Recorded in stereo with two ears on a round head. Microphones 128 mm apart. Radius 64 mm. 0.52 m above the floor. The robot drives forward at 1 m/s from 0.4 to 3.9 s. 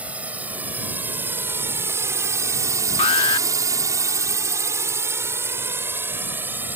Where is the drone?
10° right (ahead or behind).